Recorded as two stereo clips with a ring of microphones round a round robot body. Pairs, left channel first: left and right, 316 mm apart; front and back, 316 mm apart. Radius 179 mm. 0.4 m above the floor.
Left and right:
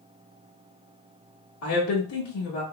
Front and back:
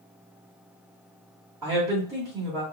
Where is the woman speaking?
105° left, 1.3 m.